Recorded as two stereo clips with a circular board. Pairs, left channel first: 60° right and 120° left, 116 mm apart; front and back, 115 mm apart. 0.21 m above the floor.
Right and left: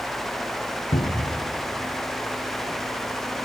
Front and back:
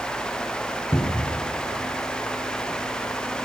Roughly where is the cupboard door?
Ahead right.